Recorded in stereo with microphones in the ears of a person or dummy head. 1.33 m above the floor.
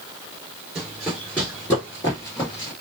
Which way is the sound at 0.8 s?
5° right (ahead or behind).